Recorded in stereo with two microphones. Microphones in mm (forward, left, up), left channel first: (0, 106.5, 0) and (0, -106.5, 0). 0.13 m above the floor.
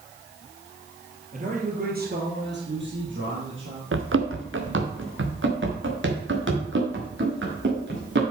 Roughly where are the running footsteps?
Right.